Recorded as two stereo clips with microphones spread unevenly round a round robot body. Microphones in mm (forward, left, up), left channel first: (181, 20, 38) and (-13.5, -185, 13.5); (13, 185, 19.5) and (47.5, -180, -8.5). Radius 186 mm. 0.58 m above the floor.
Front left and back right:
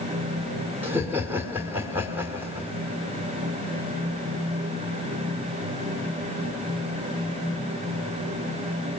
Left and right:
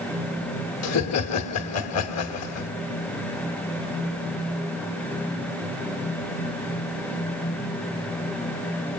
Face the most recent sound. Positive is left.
turn(degrees=145)